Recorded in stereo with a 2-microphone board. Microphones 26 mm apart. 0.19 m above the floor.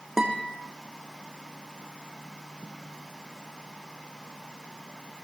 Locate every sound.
0.2 s a guitar: 10° right (ahead or behind), 4 m